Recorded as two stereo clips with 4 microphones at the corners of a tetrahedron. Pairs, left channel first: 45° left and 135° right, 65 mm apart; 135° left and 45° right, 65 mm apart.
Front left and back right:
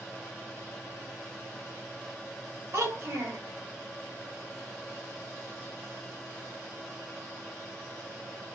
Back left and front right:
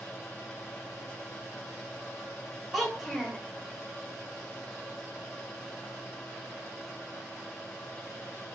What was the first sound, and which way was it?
A child speaking, 135° right.